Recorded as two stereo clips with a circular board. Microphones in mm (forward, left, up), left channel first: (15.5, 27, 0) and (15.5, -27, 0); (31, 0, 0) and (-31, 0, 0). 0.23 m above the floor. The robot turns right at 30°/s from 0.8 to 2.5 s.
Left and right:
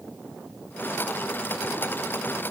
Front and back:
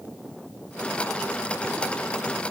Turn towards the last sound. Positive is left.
No sound to turn to.